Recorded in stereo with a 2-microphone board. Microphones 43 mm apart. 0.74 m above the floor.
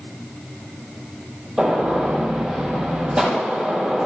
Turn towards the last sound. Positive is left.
turn(degrees=-5)  # may be behind; listen again after turning